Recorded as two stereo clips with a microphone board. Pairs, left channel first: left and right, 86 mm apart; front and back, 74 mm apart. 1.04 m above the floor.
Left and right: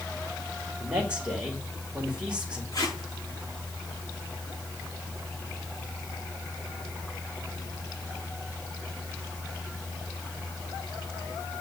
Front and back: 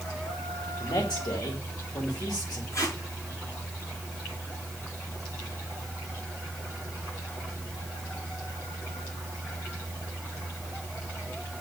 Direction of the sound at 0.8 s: 15° right.